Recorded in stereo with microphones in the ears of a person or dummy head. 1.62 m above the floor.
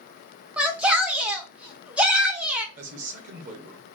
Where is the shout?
10° right (ahead or behind), 0.6 m.